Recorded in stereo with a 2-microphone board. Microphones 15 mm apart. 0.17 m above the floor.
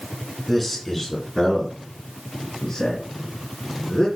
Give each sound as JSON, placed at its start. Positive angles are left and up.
{"t": 0.5, "sound": "a man speaking", "side_deg": 10, "distance_m": 2.0}